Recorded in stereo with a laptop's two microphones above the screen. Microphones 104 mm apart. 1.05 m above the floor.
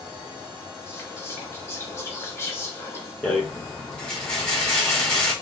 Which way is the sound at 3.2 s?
10° left (ahead or behind).